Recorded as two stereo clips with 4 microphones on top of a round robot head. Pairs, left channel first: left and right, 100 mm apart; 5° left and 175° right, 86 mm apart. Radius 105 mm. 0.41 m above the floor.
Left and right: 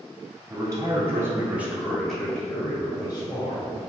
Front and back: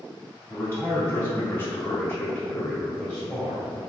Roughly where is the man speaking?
Ahead right.